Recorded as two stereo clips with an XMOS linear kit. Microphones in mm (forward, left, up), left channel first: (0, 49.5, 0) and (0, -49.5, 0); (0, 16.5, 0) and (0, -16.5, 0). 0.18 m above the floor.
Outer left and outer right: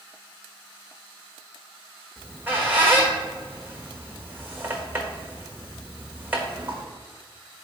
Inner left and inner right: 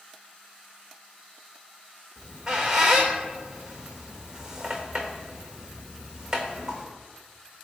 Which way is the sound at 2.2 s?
20° right (ahead or behind).